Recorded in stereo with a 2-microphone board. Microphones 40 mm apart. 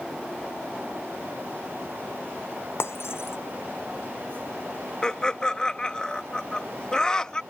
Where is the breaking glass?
85° left.